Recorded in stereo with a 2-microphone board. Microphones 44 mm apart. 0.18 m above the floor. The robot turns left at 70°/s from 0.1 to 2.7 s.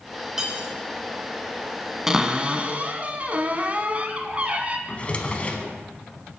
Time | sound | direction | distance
0.4 | cutlery clinking | 10° right (ahead or behind) | 1.2 m
2.1 | a cupboard door | 15° right | 0.6 m
4.9 | a drawer | 30° left (ahead or behind) | 0.7 m